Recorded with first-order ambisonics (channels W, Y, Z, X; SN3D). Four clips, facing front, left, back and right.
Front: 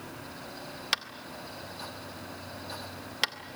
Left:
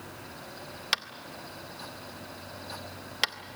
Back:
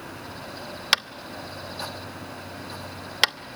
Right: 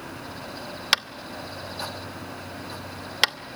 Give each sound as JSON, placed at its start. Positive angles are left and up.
{"t": 0.9, "sound": "tapping", "azimuth_deg": -140, "distance_m": 0.6}